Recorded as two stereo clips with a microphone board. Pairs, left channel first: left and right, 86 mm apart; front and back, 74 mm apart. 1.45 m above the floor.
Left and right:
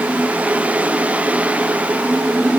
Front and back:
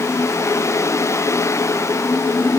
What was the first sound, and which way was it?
Only background noise.